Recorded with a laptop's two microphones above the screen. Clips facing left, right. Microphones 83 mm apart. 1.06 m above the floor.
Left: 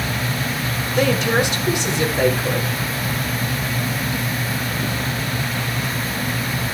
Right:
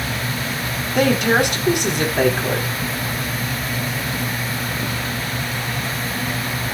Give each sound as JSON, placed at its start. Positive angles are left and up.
{"t": 0.9, "sound": "a woman speaking", "side_deg": -60, "distance_m": 4.0}